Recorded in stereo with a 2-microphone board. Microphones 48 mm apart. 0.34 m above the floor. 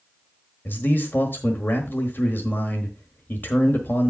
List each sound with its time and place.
0.7 s a man speaking: 40° left (ahead or behind), 1.1 m